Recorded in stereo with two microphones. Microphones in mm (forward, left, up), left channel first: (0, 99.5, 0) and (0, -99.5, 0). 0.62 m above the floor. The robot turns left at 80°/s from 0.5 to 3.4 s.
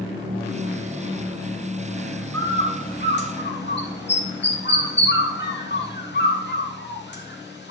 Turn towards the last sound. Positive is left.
turn(degrees=60)  # may be behind; listen again after turning